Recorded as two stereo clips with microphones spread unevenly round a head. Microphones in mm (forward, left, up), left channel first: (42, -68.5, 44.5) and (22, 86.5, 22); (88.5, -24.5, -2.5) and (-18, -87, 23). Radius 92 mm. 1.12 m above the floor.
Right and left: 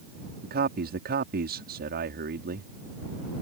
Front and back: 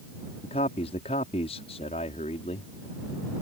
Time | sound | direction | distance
0.4 | a man speaking | 85° left | ?